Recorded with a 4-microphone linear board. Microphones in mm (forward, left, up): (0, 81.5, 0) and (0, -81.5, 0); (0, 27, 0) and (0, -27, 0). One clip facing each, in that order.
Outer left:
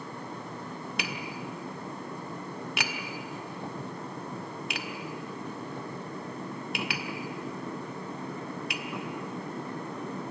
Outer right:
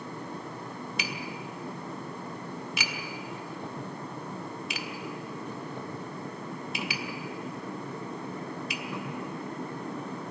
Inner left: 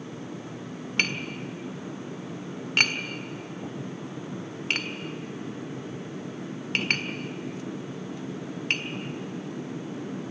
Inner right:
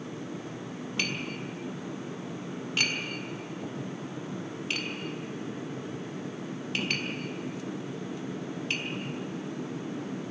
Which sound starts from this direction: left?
Tapping, at 1.0 s.